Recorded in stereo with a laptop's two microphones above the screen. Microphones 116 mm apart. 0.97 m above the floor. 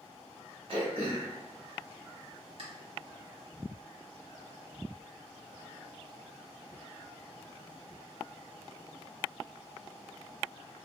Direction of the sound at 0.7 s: 55° right (ahead or behind).